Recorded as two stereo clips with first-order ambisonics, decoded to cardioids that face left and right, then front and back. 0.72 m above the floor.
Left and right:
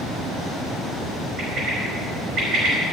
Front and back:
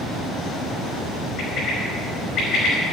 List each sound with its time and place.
1.4 s a bird: 35° right, 5 m